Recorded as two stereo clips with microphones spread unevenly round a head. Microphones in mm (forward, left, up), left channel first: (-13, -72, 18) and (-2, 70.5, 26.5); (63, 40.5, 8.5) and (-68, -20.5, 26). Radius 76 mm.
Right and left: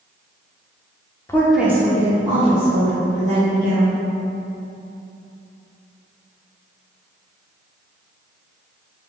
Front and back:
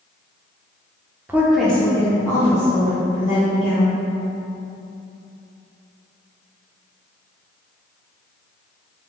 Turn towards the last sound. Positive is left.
turn(degrees=80)